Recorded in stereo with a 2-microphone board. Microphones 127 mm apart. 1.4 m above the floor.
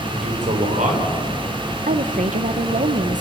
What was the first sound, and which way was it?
A man speaking, 70° right (ahead or behind).